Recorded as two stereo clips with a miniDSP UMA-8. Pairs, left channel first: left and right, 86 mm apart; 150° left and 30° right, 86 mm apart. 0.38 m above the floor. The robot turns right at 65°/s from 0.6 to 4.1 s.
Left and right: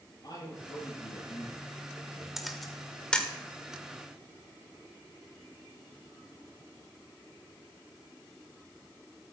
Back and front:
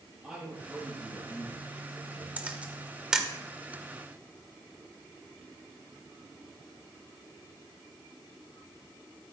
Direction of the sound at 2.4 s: 15° right.